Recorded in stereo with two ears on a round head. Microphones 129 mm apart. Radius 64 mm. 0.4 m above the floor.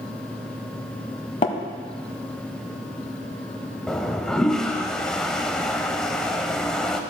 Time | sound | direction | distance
1.4 | tapping | 45° left (ahead or behind) | 1.1 m
3.9 | a toilet flushing | 5° left (ahead or behind) | 0.7 m